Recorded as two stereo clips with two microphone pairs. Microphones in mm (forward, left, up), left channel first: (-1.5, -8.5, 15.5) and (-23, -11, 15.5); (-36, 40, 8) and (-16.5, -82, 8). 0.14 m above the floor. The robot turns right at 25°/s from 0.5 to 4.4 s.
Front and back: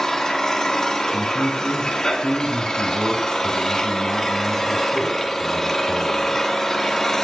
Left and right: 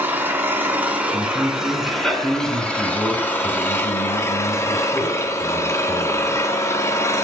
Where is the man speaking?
25° right, 1.5 m; by 6.3 s 55° left, 1.5 m.